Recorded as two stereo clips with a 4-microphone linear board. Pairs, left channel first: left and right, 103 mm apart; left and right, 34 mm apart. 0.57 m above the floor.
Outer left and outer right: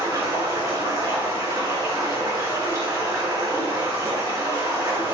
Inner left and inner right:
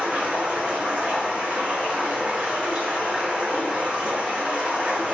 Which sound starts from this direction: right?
Running water, at 0.0 s.